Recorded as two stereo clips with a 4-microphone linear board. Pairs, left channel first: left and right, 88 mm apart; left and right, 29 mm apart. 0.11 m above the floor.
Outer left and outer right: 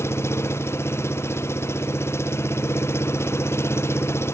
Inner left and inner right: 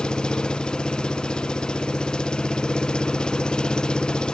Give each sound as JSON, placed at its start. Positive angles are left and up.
{"t": 0.0, "sound": "an engine running", "side_deg": 30}